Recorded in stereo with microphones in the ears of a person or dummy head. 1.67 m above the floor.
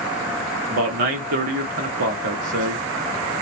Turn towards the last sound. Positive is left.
turn(degrees=-60)  # may be behind; listen again after turning